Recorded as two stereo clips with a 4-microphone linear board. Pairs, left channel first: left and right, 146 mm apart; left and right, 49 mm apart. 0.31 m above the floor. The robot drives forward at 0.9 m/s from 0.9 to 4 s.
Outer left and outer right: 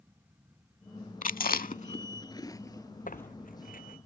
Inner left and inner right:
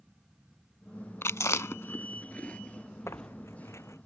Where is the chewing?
60° left (ahead or behind); by 3.3 s 15° left (ahead or behind).